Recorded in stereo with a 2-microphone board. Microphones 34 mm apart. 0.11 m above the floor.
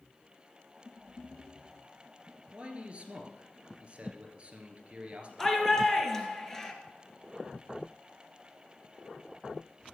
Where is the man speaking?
35° right (ahead or behind), 2 m.